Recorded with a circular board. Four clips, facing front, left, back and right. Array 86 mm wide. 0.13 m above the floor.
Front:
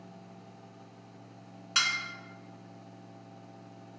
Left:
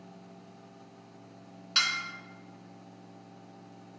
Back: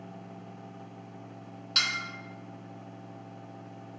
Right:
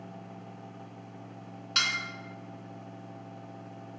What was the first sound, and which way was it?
Dishes clattering, straight ahead.